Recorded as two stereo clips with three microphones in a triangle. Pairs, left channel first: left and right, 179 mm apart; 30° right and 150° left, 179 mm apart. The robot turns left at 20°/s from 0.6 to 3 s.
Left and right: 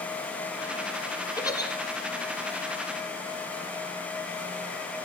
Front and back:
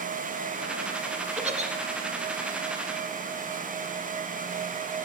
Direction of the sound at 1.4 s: 145° left.